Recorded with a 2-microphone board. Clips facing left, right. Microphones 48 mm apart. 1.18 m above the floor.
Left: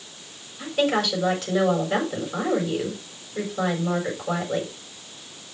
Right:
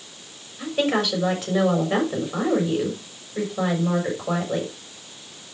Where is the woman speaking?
15° right (ahead or behind), 6 m.